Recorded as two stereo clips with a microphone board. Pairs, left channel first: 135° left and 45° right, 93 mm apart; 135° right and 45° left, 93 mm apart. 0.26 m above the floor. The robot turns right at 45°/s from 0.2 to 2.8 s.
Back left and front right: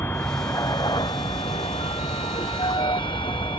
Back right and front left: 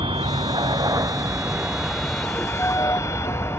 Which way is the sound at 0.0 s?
70° left.